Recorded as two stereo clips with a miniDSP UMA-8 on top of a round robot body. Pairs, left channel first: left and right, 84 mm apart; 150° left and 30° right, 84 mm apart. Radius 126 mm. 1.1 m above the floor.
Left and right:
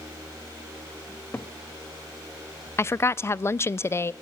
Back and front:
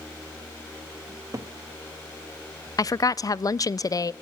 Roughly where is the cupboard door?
Ahead.